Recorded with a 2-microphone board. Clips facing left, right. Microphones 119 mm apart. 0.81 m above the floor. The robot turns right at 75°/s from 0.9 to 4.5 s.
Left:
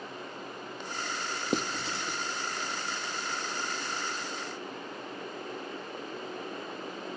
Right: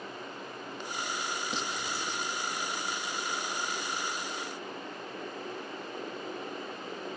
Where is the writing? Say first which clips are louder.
Left 4 dB; 50° left (ahead or behind), 0.6 m; by 2.2 s 5° left (ahead or behind), 0.6 m.